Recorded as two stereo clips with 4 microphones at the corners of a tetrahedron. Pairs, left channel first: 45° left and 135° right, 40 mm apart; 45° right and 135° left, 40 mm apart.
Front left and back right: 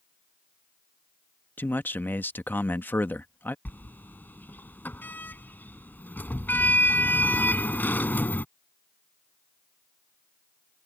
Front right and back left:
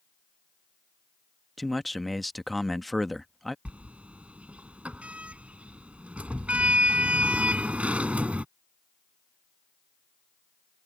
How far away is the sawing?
No sawing in this recording.